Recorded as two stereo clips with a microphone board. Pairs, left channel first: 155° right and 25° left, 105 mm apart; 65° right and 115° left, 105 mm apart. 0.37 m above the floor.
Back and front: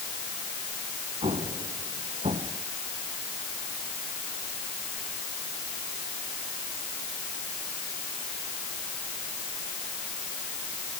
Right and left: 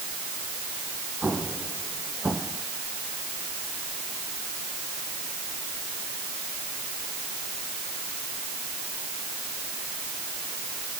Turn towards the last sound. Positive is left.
turn(degrees=35)